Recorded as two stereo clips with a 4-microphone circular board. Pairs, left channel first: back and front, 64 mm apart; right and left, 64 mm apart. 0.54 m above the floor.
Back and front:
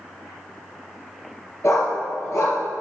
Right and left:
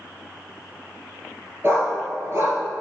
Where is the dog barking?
140° left, 3.5 m.